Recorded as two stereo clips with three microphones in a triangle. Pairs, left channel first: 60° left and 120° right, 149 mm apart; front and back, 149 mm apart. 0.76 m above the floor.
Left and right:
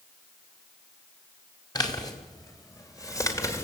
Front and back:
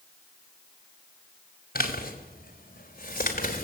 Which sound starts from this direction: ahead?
A man speaking, at 1.8 s.